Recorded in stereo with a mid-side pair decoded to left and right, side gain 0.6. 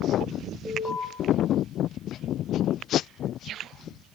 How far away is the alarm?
About 8 m.